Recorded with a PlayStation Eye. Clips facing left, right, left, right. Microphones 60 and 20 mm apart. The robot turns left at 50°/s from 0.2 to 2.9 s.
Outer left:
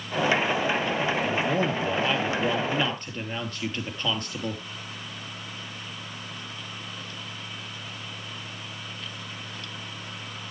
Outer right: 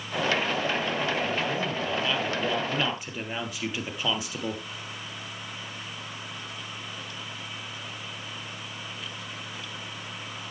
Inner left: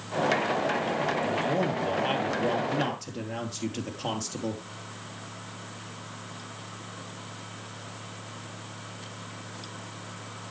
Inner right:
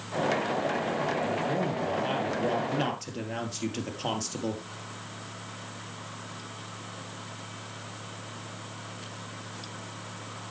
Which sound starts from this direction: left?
A man speaking, at 1.2 s.